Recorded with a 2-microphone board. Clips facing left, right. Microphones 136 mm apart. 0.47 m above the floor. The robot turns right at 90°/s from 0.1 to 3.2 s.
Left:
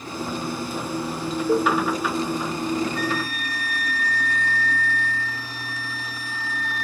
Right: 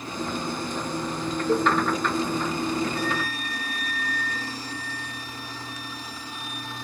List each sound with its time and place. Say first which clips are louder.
1.5 s a cowbell: left 2 dB; 15° left (ahead or behind), 0.8 m; by 1.7 s 20° left (ahead or behind), 0.8 m
3.0 s a flute: left 2 dB; 30° right (ahead or behind), 1.0 m; by 6.8 s 20° right (ahead or behind), 1.0 m